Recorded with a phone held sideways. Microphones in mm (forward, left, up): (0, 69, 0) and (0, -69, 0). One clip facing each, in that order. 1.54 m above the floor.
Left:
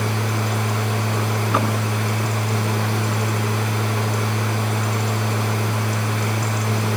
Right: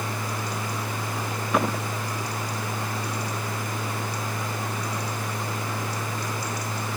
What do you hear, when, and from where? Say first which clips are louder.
0.0 s a machine running: left 7 dB; 75° left (ahead or behind), 0.9 m